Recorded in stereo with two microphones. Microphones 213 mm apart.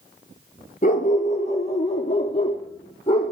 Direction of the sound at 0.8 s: 40° left (ahead or behind).